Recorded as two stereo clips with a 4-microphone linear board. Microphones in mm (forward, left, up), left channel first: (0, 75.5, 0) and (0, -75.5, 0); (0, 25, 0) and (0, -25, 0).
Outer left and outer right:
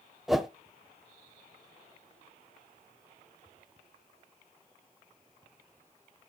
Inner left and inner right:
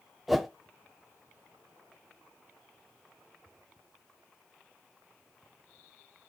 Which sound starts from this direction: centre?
A whoosh, at 0.3 s.